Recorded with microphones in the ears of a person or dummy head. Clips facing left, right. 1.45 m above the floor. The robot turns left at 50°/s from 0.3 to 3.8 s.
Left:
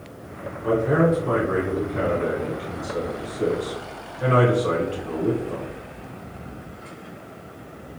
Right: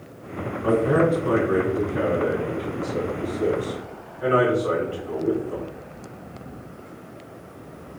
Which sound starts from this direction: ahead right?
A man speaking, at 0.6 s.